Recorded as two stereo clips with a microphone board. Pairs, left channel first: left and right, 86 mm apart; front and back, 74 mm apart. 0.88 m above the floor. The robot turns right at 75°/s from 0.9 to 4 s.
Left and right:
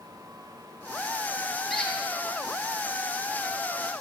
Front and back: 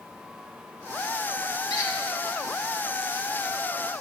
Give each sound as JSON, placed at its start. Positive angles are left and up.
{"t": 1.7, "sound": "a squeak", "azimuth_deg": 0, "distance_m": 1.0}